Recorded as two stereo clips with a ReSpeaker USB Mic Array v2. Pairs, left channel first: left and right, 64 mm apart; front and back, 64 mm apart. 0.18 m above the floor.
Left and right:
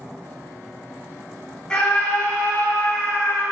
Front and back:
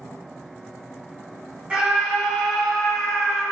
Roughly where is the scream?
Behind left.